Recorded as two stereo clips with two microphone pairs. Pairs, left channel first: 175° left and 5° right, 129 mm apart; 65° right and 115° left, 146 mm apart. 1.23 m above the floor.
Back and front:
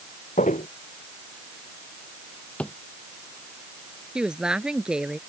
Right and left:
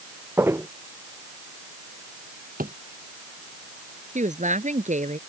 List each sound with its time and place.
0.4 s footsteps: 170° right
2.6 s a drawer: 95° left
4.2 s a woman speaking: 80° left